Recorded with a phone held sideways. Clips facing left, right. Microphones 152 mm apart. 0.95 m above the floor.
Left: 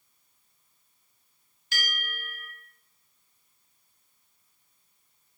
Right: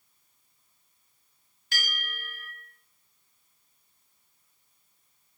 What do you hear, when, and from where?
1.7 s a bell: 55° right (ahead or behind), 1.4 m